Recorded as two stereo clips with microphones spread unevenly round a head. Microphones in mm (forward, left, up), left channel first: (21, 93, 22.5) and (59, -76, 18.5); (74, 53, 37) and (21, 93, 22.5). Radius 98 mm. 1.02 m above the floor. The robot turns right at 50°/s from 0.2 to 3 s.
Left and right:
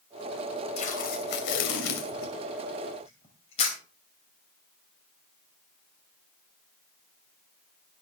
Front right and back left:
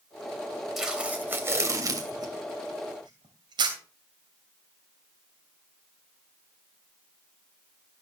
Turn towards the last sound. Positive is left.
turn(degrees=165)